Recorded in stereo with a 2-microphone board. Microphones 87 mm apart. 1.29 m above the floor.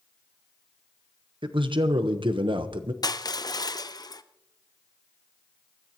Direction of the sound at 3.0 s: 50° left (ahead or behind).